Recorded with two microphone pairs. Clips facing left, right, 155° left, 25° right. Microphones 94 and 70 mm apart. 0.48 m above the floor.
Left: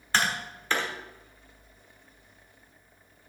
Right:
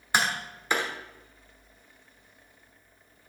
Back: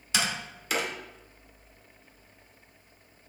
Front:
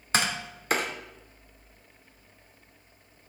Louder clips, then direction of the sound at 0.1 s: Even, front 3 dB; 20° right.